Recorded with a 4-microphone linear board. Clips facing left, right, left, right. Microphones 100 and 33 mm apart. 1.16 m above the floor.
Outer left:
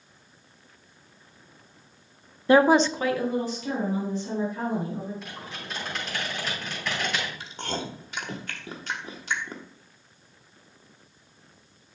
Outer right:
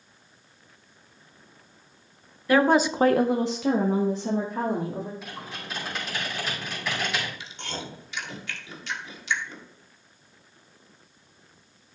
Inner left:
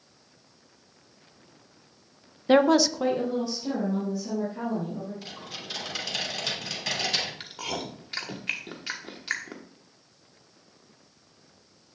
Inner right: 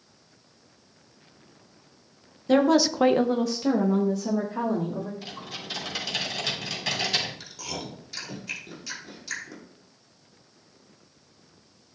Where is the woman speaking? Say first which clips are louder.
Outer left 2 dB, inner left 1 dB; 25° left (ahead or behind), 0.7 m; by 5.1 s 80° right, 3 m.